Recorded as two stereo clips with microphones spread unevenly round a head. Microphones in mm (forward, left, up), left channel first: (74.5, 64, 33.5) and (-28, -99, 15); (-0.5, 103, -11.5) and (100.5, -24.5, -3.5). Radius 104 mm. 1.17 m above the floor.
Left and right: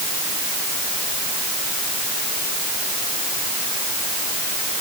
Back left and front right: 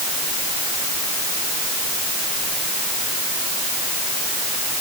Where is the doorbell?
I don't hear a doorbell.